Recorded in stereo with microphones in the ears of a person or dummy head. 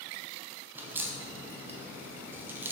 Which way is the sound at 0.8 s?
10° right (ahead or behind).